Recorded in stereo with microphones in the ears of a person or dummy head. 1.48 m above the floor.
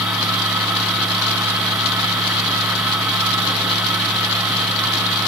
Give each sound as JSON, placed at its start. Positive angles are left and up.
{"t": 0.0, "sound": "a fan", "side_deg": 0, "distance_m": 3.0}